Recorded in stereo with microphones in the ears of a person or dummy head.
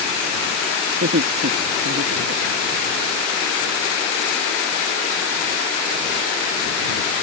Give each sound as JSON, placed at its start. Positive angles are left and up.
{"t": 0.9, "sound": "laughter", "side_deg": -45}